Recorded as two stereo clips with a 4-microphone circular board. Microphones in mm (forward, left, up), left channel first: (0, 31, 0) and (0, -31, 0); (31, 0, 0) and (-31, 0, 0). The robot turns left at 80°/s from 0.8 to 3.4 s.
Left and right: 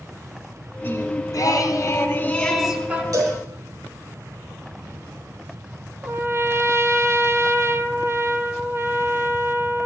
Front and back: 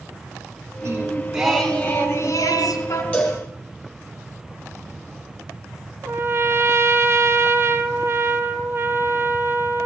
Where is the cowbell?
70° right, 6 m; by 3.4 s 90° right, 6 m.